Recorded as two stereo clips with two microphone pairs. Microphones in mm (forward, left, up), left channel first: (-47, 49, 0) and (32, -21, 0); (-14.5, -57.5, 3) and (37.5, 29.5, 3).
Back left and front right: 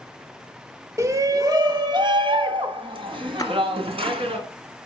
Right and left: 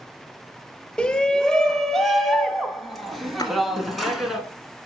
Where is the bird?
No bird in this recording.